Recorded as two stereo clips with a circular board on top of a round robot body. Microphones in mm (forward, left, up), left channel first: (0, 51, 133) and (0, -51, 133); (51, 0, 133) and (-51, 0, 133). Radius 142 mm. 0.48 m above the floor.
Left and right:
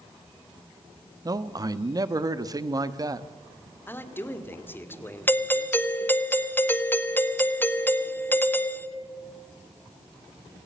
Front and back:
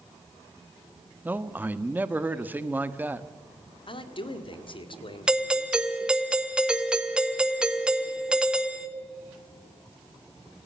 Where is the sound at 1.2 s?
115° right, 1.4 m.